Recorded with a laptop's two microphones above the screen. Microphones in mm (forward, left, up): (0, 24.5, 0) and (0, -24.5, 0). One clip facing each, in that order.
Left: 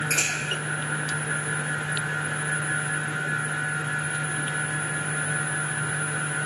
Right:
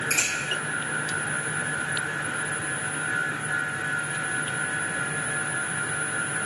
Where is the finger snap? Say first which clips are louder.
Even; 55° left (ahead or behind), 1.7 m.